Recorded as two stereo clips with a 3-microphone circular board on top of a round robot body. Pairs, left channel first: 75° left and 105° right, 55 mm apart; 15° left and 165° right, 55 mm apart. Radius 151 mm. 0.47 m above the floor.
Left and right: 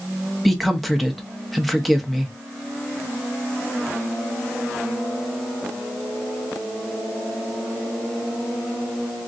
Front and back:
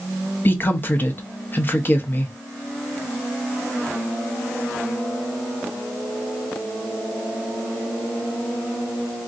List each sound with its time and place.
0.5 s a woman speaking: 15° right, 0.9 m